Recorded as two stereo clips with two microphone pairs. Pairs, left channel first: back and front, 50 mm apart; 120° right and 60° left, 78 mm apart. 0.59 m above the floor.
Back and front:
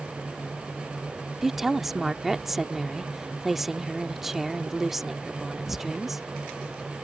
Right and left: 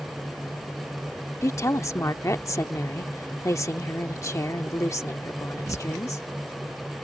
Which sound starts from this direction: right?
A woman speaking, at 1.4 s.